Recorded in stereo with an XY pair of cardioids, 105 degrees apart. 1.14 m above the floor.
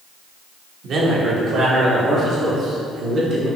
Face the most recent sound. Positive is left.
turn(degrees=-55)